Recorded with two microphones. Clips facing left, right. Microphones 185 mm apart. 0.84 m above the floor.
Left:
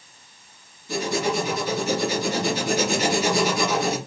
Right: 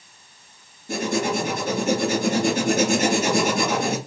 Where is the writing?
50° right (ahead or behind), 1.3 m.